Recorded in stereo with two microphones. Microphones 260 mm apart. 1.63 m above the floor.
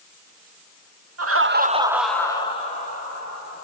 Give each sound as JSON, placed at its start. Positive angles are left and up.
{"t": 1.2, "sound": "laughter", "side_deg": -70, "distance_m": 0.6}